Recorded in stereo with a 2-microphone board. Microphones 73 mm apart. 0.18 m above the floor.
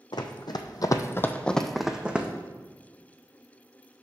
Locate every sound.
0.1 s running footsteps: 85° left, 0.7 m; by 2.3 s 15° right (ahead or behind), 0.8 m